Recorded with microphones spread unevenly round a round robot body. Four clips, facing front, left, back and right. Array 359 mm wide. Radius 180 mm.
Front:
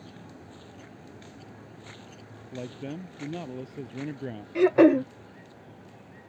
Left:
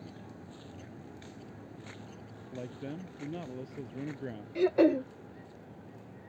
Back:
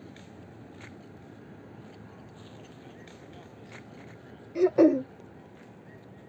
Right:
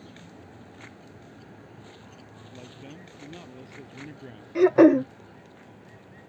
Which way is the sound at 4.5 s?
65° right.